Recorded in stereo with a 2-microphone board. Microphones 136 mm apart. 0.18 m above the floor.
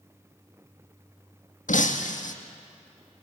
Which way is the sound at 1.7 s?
85° left.